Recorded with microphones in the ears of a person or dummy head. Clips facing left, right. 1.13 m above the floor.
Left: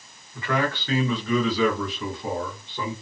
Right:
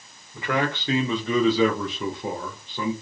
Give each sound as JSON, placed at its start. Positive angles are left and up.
{"t": 0.3, "sound": "a man speaking", "side_deg": -15, "distance_m": 1.0}